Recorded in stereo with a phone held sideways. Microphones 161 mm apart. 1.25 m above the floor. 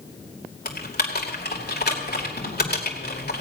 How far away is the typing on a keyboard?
About 2 m.